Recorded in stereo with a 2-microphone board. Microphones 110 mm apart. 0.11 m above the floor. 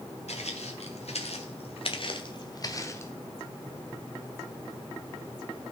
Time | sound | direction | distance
0.3 | footsteps | 90° left | 2 m